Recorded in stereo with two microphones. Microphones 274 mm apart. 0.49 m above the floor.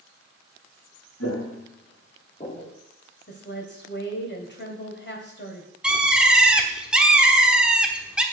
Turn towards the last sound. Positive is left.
turn(degrees=-5)  # may be behind; listen again after turning